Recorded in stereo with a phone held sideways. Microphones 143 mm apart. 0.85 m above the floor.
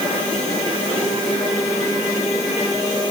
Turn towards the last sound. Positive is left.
No sound to turn to.